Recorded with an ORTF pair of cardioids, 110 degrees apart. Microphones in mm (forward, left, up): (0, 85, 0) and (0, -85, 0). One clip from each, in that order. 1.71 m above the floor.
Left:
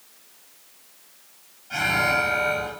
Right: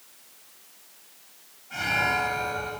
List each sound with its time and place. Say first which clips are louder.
1.7 s an alarm: left 3 dB; 50° left, 6 m